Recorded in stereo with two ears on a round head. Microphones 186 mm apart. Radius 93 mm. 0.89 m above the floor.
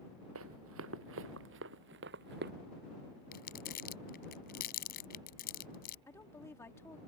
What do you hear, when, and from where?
0.3 s running footsteps: 75° right (ahead or behind); by 2.5 s 50° right (ahead or behind)
3.3 s crumpling: 45° left (ahead or behind)
6.1 s a woman speaking: 10° left (ahead or behind)